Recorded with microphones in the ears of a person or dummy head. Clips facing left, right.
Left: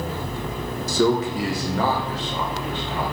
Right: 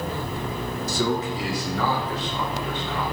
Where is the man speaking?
70° left (ahead or behind), 1.8 m; by 3.0 s 30° left (ahead or behind), 3.5 m.